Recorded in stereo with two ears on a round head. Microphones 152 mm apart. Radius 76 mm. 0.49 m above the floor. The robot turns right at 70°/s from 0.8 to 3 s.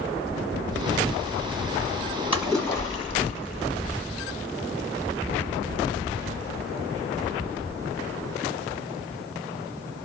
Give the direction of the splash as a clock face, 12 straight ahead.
12 o'clock.